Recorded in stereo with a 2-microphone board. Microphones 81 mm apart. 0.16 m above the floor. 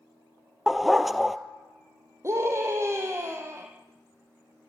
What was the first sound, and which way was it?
A dog barking, 5° right (ahead or behind).